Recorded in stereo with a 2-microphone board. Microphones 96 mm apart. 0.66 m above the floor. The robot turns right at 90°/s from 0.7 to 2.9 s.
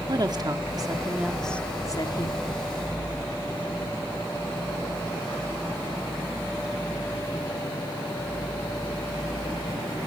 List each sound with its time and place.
0.1 s a woman speaking: 60° right, 1.5 m; by 2.4 s 95° left, 1.5 m